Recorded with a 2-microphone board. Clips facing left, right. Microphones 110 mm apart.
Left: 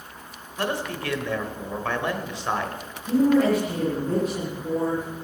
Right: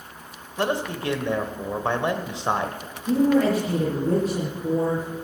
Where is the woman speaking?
35° right (ahead or behind), 6.5 m.